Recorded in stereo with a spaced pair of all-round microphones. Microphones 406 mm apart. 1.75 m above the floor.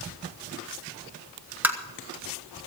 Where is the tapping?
5° right (ahead or behind), 1.5 m.